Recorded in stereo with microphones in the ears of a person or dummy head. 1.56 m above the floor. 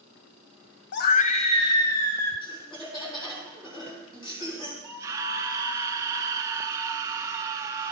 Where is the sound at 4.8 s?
20° right (ahead or behind), 1.6 m.